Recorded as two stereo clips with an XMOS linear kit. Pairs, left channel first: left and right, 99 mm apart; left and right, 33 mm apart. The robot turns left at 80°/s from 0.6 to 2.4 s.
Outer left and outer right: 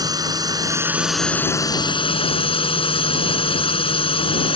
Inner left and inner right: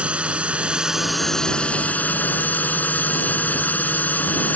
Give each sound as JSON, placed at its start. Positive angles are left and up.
{"t": 0.0, "sound": "a drone", "azimuth_deg": -135}